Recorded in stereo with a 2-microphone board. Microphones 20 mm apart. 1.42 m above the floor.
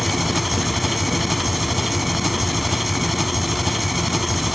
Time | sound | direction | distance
0.0 | an engine running | 10° right (ahead or behind) | ?